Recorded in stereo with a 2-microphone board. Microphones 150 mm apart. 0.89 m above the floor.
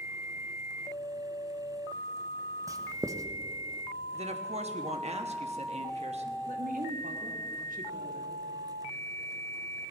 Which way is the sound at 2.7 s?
20° right (ahead or behind).